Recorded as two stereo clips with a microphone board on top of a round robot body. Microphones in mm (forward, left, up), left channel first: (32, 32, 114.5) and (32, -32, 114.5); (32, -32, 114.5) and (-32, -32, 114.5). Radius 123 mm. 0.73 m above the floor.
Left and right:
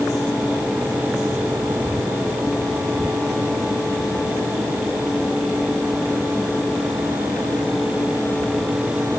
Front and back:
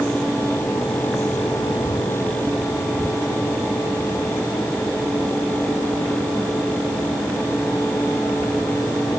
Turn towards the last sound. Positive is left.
No sound to turn to.